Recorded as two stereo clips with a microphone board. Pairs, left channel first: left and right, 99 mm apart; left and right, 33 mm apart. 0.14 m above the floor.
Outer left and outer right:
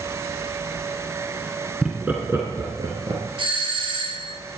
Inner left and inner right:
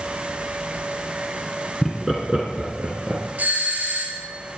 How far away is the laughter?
About 1.7 m.